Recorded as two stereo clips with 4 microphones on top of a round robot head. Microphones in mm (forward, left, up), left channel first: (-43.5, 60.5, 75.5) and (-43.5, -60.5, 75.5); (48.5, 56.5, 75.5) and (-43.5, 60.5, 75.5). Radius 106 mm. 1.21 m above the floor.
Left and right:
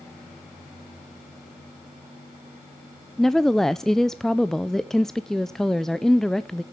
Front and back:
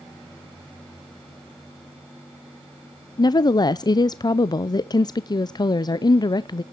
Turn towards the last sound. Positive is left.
turn(degrees=5)